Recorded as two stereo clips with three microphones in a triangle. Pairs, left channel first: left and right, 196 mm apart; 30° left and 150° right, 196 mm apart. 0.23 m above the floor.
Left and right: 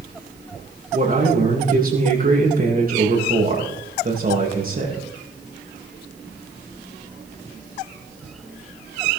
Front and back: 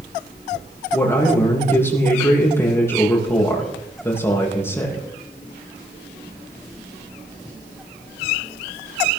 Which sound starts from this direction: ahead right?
A man speaking, at 0.9 s.